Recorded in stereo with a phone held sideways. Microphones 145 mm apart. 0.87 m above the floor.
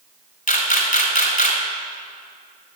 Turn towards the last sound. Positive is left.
turn(degrees=70)  # may be behind; listen again after turning